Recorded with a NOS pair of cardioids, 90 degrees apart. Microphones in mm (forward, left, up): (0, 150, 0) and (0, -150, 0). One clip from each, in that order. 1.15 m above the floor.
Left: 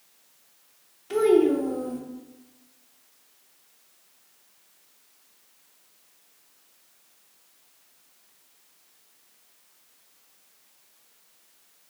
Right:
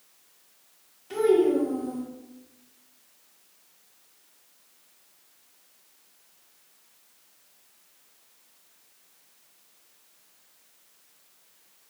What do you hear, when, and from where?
1.1 s a child speaking: 25° left, 0.9 m